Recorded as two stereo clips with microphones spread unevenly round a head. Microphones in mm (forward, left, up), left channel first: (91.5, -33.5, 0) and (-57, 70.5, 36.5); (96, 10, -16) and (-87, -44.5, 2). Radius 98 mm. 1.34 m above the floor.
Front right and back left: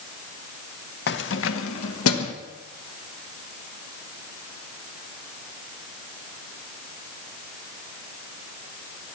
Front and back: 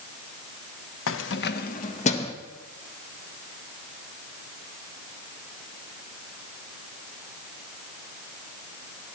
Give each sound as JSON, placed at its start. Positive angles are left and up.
{"t": 1.1, "sound": "keys jangling", "azimuth_deg": 0, "distance_m": 0.8}